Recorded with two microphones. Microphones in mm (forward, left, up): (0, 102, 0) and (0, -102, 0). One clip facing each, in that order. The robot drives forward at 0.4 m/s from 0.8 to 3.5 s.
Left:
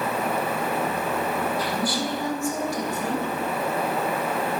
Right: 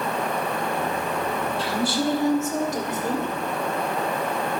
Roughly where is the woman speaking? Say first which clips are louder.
Right 2 dB; right.